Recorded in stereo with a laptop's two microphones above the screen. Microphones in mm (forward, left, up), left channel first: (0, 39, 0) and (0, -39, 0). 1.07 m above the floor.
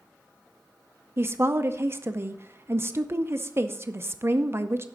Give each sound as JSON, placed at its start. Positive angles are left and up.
{"t": 1.2, "sound": "a woman speaking", "side_deg": -35, "distance_m": 0.6}